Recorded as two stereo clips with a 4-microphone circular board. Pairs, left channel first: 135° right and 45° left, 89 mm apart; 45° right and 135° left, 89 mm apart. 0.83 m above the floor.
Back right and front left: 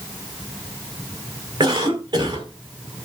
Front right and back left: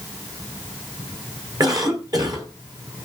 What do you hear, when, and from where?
1.6 s a cough: 90° left, 4 m